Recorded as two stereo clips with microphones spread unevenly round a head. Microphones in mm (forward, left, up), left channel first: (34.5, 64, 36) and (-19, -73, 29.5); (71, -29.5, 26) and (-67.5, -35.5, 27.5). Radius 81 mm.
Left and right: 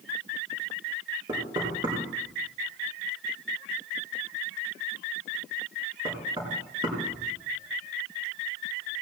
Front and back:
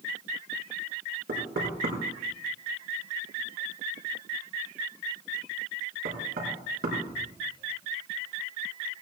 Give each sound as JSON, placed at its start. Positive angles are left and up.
{"t": 1.3, "sound": "knocking", "azimuth_deg": -175, "distance_m": 4.5}